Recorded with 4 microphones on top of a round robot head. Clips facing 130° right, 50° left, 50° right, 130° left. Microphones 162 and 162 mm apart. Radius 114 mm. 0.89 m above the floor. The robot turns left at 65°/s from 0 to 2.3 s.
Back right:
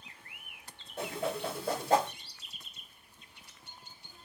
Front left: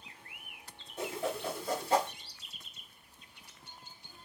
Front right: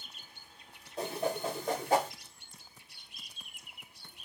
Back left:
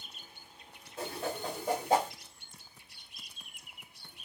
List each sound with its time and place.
1.0 s a whoosh: 105° right, 1.9 m; by 2.1 s straight behind, 1.9 m